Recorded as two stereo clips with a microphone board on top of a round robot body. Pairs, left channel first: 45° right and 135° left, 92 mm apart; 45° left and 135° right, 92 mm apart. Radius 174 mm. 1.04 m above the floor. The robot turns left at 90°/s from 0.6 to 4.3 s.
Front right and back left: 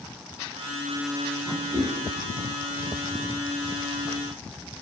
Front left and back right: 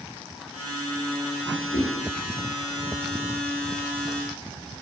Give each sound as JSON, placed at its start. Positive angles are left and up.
{"t": 1.7, "sound": "a whoosh", "azimuth_deg": 75, "distance_m": 1.0}